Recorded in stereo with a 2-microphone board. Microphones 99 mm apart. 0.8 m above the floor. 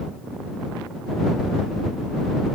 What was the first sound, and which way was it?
Only background noise.